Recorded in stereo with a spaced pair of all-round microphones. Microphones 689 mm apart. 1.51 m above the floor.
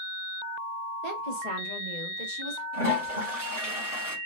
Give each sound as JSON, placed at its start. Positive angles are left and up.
{"t": 1.0, "sound": "a woman speaking", "side_deg": -65, "distance_m": 1.4}
{"t": 2.7, "sound": "a toilet flushing", "side_deg": -55, "distance_m": 3.5}